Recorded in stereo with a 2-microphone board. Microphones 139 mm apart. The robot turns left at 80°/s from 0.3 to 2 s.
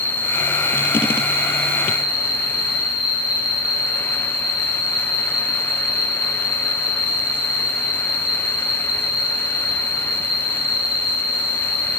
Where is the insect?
75° right, 3 m; by 12.0 s 145° left, 3 m.